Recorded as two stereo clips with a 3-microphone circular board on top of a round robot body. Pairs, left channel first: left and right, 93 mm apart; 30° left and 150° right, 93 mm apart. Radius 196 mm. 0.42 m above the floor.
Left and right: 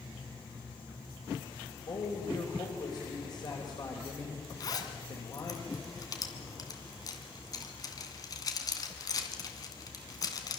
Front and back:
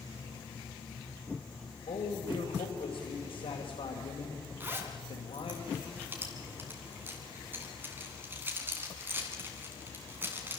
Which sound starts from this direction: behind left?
A zipper, at 4.6 s.